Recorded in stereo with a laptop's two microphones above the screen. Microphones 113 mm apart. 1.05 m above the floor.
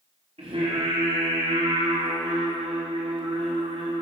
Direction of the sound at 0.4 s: 65° right (ahead or behind).